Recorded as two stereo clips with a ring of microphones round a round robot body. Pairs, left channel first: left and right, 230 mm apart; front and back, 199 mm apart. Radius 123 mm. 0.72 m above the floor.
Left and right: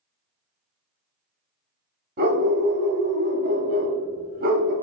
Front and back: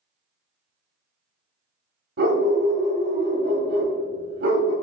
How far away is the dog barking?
About 0.9 m.